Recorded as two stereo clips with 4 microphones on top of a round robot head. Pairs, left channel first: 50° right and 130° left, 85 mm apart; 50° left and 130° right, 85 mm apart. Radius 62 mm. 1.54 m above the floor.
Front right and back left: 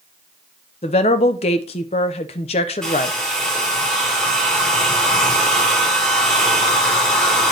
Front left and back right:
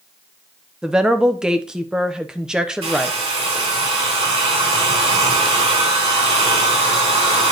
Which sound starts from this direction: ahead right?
A woman speaking, at 0.8 s.